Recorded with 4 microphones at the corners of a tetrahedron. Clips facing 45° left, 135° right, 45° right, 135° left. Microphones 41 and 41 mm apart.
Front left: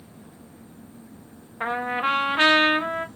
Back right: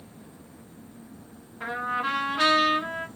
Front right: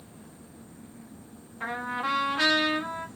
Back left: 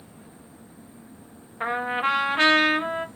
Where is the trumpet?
90° left, 0.6 m.